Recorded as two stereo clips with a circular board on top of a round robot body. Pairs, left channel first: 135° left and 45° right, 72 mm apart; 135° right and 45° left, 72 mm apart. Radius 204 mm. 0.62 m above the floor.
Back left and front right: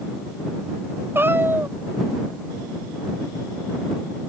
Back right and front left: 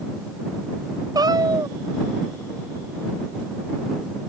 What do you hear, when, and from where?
1.1 s a cat meowing: 15° left